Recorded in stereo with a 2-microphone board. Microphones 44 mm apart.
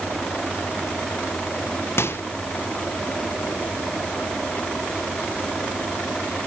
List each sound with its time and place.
2.0 s a microwave: 70° left (ahead or behind), 0.8 m